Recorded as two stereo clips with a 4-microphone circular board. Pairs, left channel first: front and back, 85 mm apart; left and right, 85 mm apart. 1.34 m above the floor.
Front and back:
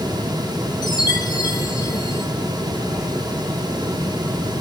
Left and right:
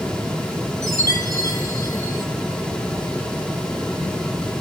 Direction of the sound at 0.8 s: 35° right.